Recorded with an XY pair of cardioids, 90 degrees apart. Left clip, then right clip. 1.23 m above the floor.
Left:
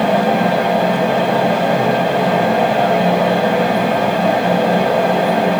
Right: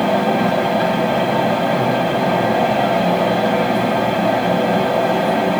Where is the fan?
10° left, 1.4 m.